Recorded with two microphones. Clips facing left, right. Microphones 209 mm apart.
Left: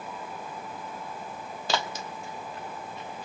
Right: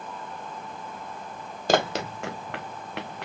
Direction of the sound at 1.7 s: 50° right (ahead or behind).